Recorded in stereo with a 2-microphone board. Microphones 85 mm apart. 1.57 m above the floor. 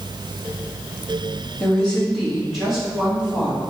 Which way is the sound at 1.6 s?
15° left (ahead or behind).